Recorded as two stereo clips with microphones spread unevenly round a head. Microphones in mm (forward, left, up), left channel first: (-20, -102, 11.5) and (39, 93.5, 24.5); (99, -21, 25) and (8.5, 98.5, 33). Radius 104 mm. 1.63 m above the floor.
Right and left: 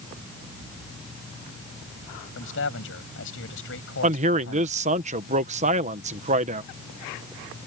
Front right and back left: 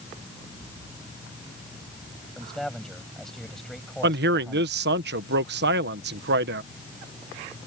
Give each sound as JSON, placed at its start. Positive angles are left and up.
{"t": 2.4, "sound": "a man speaking", "azimuth_deg": -140}
{"t": 4.0, "sound": "a man speaking", "azimuth_deg": 130}